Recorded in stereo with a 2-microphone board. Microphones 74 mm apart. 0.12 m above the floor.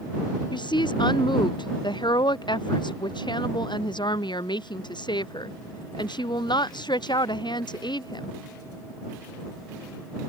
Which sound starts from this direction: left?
A woman speaking, at 0.5 s.